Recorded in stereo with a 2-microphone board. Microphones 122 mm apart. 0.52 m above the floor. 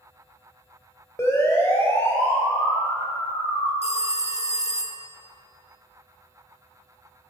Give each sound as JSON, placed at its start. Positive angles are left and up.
{"t": 1.2, "sound": "a siren", "side_deg": 25, "distance_m": 3.5}
{"t": 3.8, "sound": "a phone ringing", "side_deg": 60, "distance_m": 0.9}